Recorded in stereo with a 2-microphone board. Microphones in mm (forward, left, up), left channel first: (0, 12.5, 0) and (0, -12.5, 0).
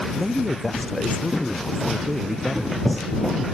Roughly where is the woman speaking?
Centre.